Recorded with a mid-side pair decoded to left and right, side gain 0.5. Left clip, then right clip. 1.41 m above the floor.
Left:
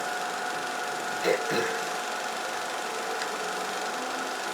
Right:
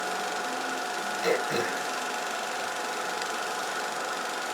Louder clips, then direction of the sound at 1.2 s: Left 1 dB; 5° left.